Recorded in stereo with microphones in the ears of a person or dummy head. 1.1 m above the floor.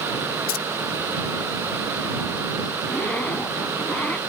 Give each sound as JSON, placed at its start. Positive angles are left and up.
{"t": 0.5, "sound": "keys jangling", "side_deg": 40}
{"t": 2.8, "sound": "a zipper", "side_deg": 10}